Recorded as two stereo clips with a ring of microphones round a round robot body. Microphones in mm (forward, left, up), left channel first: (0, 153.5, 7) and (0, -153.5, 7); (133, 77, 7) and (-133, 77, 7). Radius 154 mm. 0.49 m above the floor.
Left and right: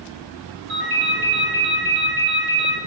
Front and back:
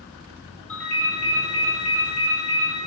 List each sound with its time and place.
0.7 s a ringtone: 80° right, 0.8 m